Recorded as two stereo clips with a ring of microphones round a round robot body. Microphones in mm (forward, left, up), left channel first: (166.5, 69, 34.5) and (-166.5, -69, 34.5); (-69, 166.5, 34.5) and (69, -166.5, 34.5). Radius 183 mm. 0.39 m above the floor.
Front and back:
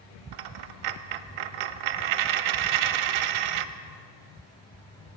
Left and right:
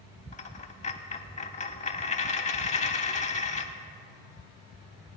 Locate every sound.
0.3 s a dropped coin: 175° right, 0.5 m